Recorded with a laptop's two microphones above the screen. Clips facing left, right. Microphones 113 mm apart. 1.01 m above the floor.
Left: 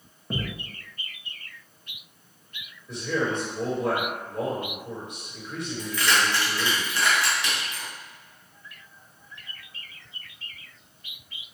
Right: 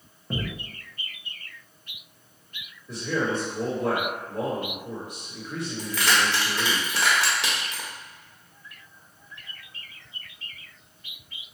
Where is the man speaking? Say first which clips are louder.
Even; 5° right (ahead or behind), 1.6 m.